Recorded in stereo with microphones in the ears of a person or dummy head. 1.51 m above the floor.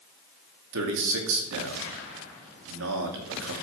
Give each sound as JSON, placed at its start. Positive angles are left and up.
{"t": 0.7, "sound": "a man speaking", "side_deg": -70, "distance_m": 2.5}